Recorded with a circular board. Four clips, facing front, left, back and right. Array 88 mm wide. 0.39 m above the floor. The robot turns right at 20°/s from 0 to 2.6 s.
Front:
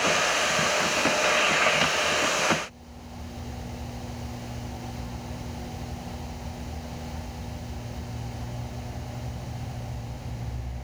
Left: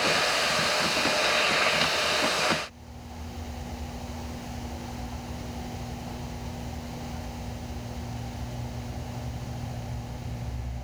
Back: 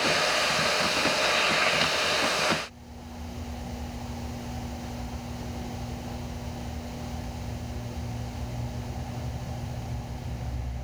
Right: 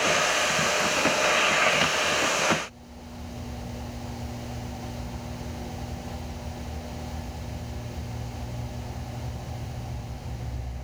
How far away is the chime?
I don't hear a chime.